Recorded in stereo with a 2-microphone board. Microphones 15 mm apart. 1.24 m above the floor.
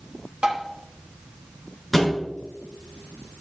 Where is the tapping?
85° right, 1.4 m.